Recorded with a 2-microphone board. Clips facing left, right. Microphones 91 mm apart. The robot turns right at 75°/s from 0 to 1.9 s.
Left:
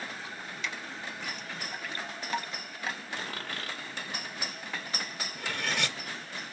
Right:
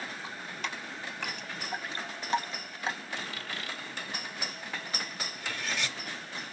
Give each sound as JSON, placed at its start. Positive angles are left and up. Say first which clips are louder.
{"t": 0.2, "sound": "dripping", "louder": "right 1 dB", "side_deg": -25, "distance_m": 0.9}
{"t": 3.2, "sound": "a dropped coin", "louder": "left 1 dB", "side_deg": 45, "distance_m": 1.6}
{"t": 5.3, "sound": "cutlery clinking", "louder": "left 3 dB", "side_deg": 60, "distance_m": 0.8}